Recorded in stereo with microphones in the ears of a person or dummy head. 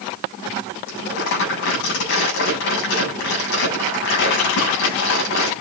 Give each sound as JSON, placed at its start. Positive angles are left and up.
{"t": 0.9, "sound": "crumpling", "side_deg": 65, "distance_m": 8.5}